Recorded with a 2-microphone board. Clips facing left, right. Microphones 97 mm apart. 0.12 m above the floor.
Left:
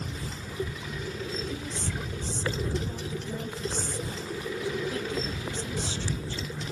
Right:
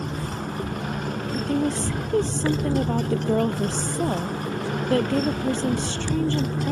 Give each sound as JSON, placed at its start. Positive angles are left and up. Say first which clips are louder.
{"t": 0.0, "sound": "a motorcycle", "louder": "right 8 dB", "side_deg": -55}
{"t": 1.3, "sound": "a woman speaking", "louder": "right 11 dB", "side_deg": -65}